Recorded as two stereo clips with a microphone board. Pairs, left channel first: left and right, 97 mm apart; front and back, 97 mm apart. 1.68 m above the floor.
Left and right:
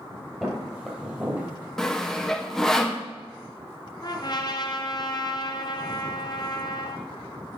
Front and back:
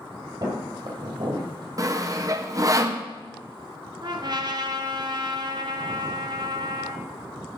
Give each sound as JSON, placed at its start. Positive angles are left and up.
{"t": 0.4, "sound": "footsteps", "azimuth_deg": -175, "distance_m": 2.5}
{"t": 1.8, "sound": "sawing", "azimuth_deg": 175, "distance_m": 0.7}
{"t": 4.0, "sound": "a trumpet", "azimuth_deg": 135, "distance_m": 0.8}